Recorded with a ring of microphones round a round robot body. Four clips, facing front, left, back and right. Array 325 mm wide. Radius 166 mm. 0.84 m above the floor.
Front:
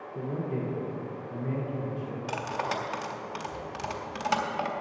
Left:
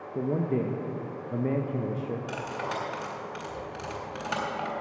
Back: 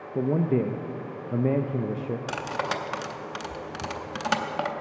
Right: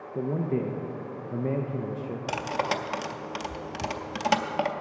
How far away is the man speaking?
About 0.6 m.